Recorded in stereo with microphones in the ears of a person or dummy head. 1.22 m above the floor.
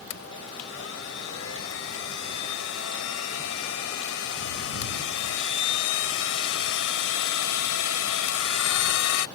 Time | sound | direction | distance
0.1 | a blender | 85° left | ?